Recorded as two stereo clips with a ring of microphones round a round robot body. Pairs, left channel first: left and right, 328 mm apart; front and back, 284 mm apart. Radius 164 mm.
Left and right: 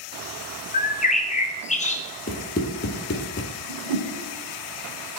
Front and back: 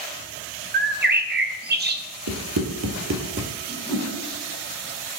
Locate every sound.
0.7 s a bird: 150° left, 0.9 m
2.3 s running footsteps: 155° left, 1.9 m; by 3.5 s 135° left, 1.5 m
3.7 s a whoosh: 80° right, 5 m